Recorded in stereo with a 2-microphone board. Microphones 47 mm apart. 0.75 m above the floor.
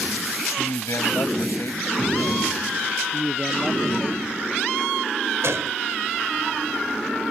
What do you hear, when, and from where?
0.6 s a man speaking: 75° left (ahead or behind)
3.1 s a man speaking: 20° right (ahead or behind)
5.4 s a gunshot: 75° right (ahead or behind)